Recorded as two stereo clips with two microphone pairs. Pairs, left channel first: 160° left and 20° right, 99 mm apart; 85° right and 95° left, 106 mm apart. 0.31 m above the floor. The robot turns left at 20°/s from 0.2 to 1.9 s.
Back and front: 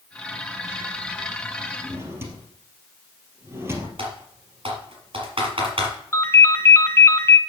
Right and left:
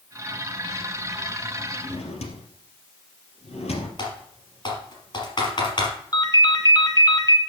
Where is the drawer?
80° right, 2.5 m.